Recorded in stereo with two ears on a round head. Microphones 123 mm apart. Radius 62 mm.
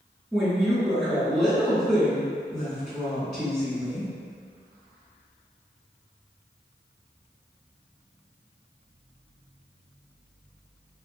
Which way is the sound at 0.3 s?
5° left (ahead or behind).